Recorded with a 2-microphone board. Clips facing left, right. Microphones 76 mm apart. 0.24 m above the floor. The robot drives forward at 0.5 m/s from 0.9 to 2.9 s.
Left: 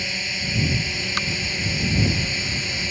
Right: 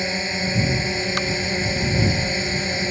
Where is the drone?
35° right (ahead or behind).